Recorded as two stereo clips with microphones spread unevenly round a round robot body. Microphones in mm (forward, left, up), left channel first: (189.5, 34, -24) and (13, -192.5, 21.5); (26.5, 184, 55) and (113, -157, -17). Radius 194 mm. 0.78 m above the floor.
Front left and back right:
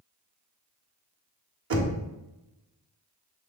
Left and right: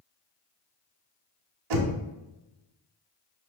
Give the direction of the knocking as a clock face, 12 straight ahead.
3 o'clock.